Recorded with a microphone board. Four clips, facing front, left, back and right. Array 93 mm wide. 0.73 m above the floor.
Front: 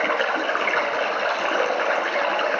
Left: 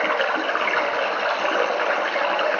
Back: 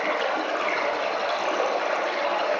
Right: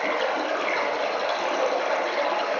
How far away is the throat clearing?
I don't hear throat clearing.